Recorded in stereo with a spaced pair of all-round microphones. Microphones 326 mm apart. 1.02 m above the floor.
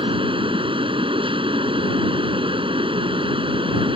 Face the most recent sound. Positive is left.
turn(degrees=-15)  # may be behind; listen again after turning